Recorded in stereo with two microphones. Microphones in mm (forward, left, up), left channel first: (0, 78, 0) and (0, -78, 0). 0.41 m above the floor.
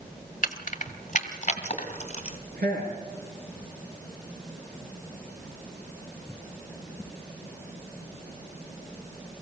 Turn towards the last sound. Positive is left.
turn(degrees=-80)